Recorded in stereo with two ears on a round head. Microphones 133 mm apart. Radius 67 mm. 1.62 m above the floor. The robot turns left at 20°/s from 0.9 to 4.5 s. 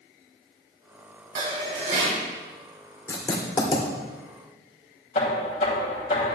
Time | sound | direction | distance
1.4 | dishes clattering | 40° right (ahead or behind) | 3.5 m
3.1 | writing | 20° left (ahead or behind) | 2 m
5.2 | knocking | 50° left (ahead or behind) | 3 m